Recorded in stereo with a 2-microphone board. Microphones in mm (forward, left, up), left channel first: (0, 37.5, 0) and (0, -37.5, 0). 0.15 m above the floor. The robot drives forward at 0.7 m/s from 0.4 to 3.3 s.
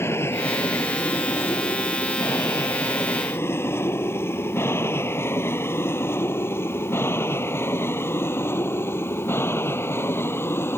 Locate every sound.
0.0 s an aircraft: 35° left (ahead or behind)